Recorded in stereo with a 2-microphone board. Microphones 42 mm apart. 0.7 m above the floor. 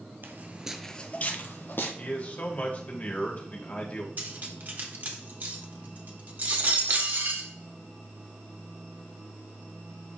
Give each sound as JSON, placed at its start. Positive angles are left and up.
{"t": 0.2, "sound": "footsteps", "side_deg": -50, "distance_m": 0.9}
{"t": 2.0, "sound": "a man speaking", "side_deg": 35, "distance_m": 1.6}
{"t": 4.2, "sound": "cutlery clinking", "side_deg": -45, "distance_m": 1.2}